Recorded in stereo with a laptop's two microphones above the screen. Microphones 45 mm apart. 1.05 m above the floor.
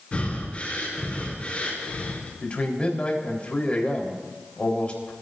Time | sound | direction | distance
0.1 | breathing | 25° left (ahead or behind) | 3.5 m
2.4 | a man speaking | 30° left (ahead or behind) | 4 m